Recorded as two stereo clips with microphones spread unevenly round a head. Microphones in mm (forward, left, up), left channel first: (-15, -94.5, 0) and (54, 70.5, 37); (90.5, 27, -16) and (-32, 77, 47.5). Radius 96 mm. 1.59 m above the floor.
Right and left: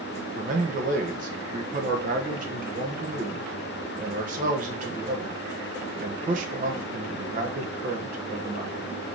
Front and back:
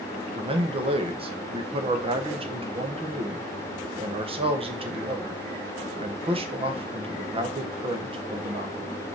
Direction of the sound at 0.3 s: 115° left.